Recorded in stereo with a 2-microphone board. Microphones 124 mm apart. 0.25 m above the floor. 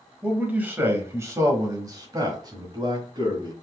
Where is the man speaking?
10° right (ahead or behind), 1.1 m; by 3.5 s 35° right (ahead or behind), 1.7 m.